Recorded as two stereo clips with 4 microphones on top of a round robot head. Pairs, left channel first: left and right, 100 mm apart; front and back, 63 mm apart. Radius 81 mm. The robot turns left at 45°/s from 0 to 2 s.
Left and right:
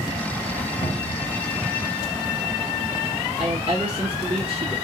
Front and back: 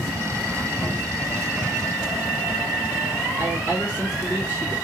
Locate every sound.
0.8 s a cupboard door: 85° left, 1.6 m; by 1.3 s 60° left, 1.6 m
3.4 s a woman speaking: 60° right, 1.4 m